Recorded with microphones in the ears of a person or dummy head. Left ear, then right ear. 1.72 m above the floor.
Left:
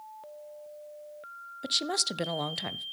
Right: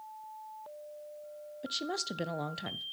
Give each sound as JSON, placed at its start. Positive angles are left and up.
{"t": 1.6, "sound": "a woman speaking", "side_deg": 15, "distance_m": 0.6}